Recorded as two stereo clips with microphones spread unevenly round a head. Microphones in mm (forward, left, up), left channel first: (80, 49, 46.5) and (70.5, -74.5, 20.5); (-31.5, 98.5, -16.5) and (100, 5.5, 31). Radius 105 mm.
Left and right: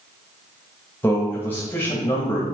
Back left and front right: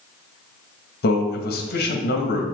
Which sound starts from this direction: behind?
A man speaking, at 1.0 s.